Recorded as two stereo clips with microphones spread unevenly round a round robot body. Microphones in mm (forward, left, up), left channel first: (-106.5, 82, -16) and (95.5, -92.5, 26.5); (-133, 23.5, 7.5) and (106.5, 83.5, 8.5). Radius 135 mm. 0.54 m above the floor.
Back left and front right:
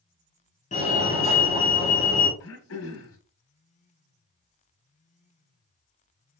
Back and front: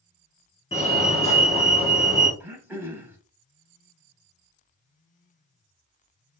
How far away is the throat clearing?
About 1.3 m.